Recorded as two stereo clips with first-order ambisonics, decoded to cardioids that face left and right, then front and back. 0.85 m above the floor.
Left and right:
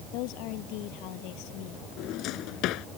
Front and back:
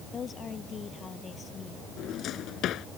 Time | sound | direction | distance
0.1 | a woman speaking | 65° left | ?
2.0 | a drawer | 50° left | ?